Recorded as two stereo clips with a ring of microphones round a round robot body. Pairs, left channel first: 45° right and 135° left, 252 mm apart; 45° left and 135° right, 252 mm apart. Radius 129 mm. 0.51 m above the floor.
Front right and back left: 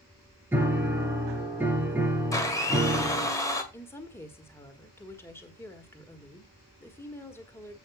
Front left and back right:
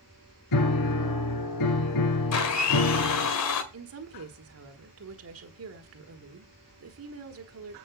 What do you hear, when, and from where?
0.5 s a piano: 55° left, 1.8 m
2.3 s a blender: 30° left, 1.8 m
3.7 s a woman speaking: 125° right, 1.6 m